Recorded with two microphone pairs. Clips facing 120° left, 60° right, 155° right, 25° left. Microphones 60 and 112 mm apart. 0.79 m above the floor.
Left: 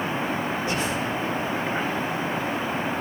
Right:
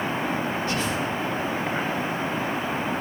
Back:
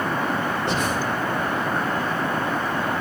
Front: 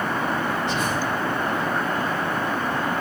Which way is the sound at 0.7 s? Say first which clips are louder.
Even, back 1 dB; 170° right.